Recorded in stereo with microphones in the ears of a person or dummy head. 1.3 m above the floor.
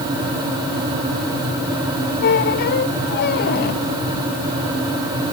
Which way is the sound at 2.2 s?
55° left (ahead or behind).